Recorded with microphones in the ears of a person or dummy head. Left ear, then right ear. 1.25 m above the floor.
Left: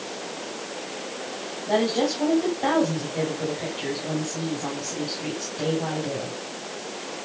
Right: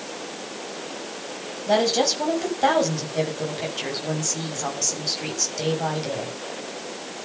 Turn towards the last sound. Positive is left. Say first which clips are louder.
# right 3 dB
turn(degrees=-80)